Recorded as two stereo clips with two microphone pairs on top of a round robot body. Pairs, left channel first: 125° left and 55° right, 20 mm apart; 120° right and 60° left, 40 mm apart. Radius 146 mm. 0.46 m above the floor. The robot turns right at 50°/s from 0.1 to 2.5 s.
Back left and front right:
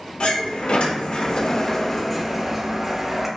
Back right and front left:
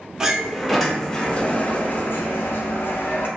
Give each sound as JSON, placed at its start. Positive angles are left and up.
{"t": 0.2, "sound": "a sliding door", "azimuth_deg": 120, "distance_m": 0.6}